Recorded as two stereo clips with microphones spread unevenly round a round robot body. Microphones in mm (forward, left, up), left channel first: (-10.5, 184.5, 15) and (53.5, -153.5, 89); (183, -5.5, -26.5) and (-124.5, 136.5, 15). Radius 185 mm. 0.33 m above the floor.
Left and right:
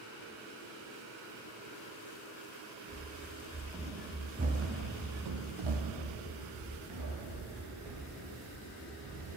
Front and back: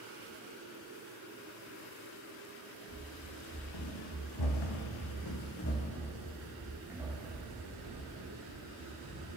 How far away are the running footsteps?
About 3.5 m.